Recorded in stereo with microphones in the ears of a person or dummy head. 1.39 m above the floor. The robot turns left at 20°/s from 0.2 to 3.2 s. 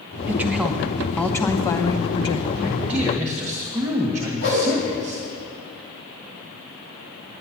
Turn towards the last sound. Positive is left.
turn(degrees=60)  # may be behind; listen again after turning